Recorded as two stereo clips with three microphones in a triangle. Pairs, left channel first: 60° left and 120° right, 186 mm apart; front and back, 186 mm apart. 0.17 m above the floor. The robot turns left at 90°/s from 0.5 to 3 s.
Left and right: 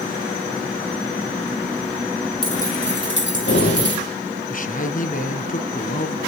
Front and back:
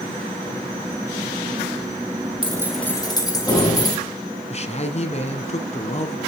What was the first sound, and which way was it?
Keys jangling, 120° left.